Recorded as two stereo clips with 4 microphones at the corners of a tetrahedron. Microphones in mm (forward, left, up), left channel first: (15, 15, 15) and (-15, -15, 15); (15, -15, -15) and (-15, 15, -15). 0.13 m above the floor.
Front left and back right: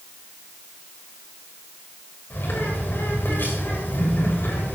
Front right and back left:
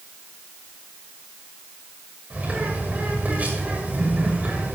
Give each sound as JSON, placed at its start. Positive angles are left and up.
{"t": 2.3, "sound": "a bird", "azimuth_deg": 80, "distance_m": 6.5}